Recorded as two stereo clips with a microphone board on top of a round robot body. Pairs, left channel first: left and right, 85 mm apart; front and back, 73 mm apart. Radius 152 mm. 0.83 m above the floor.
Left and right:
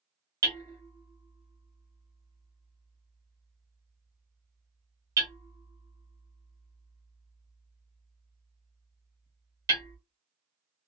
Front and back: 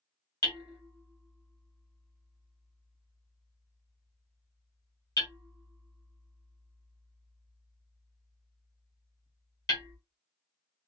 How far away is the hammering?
About 1.1 m.